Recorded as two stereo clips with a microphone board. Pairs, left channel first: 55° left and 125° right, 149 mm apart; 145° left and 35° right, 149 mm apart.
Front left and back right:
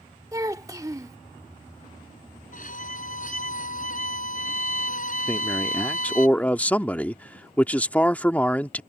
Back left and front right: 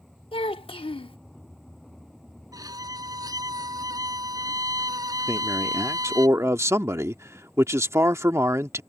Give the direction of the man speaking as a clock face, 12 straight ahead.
12 o'clock.